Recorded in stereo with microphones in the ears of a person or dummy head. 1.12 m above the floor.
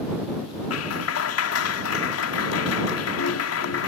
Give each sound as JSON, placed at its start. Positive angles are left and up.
{"t": 0.7, "sound": "a clap", "side_deg": 80}